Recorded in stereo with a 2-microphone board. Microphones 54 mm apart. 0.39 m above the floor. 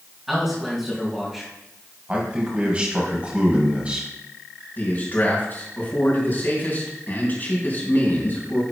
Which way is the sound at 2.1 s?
25° right (ahead or behind).